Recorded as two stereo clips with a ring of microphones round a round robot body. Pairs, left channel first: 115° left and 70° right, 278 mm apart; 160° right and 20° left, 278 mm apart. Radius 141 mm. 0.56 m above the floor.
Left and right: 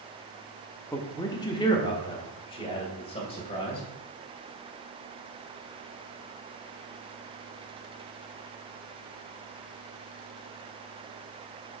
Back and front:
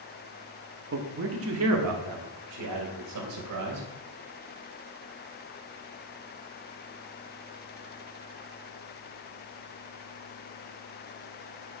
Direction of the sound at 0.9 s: 35° left.